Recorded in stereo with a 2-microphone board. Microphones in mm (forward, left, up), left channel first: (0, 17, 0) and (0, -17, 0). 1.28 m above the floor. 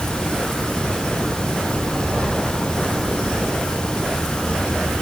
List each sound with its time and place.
Only background noise.